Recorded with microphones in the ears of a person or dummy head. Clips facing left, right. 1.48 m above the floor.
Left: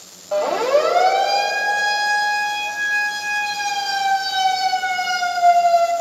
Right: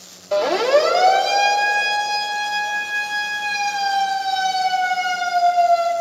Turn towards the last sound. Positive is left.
turn(degrees=60)  # may be behind; listen again after turning